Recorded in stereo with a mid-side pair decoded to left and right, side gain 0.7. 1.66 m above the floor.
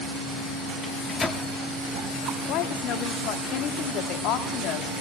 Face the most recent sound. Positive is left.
turn(degrees=60)